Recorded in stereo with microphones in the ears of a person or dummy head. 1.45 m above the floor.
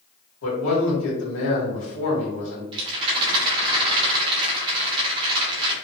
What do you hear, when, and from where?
0.4 s a man speaking: 85° left, 1.7 m
2.7 s a rattle: 30° right (ahead or behind), 1.0 m